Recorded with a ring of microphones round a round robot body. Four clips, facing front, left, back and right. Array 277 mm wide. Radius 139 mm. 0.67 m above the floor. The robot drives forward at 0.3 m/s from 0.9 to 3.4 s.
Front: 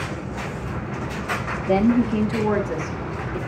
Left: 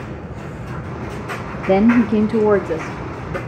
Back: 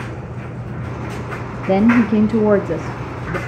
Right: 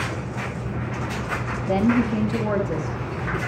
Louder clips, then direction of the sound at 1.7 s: Left 7 dB, back 5 dB; 130° left.